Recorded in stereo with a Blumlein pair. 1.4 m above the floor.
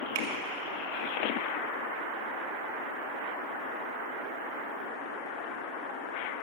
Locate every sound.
0.1 s a finger snap: 40° right, 2.5 m